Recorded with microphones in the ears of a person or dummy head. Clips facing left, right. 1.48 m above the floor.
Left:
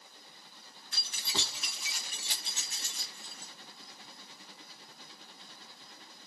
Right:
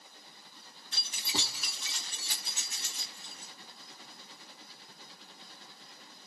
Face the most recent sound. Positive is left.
turn(degrees=60)  # may be behind; listen again after turning